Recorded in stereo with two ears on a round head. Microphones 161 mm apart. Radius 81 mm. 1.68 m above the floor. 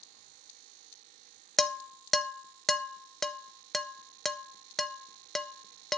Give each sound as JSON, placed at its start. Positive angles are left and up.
{"t": 1.6, "sound": "dishes clattering", "side_deg": 0, "distance_m": 0.7}